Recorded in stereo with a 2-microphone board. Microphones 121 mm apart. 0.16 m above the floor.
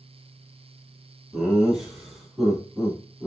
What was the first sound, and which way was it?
Laughter, 5° right (ahead or behind).